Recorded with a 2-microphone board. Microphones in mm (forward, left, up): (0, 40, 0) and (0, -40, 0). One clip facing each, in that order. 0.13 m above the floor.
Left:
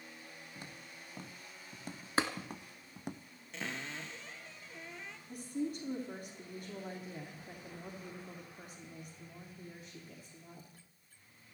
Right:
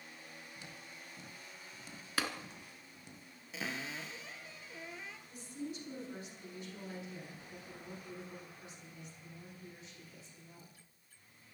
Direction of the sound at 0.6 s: 50° left (ahead or behind).